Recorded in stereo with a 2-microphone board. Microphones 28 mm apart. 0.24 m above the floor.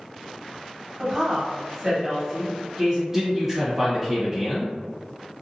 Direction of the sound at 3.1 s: 20° right (ahead or behind).